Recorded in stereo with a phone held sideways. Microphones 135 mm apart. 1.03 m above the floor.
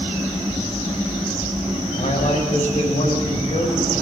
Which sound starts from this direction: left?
A man speaking, at 1.9 s.